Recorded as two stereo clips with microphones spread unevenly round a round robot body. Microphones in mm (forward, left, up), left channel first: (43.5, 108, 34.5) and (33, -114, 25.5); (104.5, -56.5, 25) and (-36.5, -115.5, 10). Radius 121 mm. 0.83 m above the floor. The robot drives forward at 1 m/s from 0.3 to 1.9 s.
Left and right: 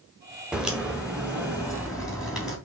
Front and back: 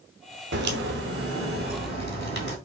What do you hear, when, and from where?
0.5 s a crack: straight behind, 1.1 m